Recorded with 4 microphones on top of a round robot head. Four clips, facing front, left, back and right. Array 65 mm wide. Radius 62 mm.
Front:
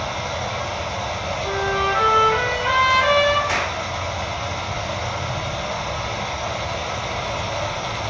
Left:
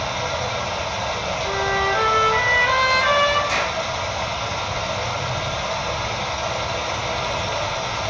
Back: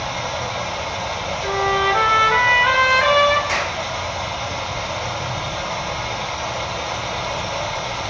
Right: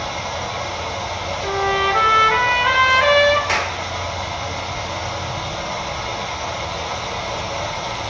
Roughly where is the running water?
Left.